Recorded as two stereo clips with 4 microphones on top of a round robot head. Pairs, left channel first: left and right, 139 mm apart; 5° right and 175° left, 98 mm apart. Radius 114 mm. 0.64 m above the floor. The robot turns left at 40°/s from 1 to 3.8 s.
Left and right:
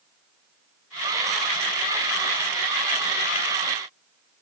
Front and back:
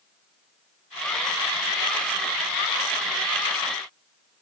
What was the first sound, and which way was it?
Only background noise.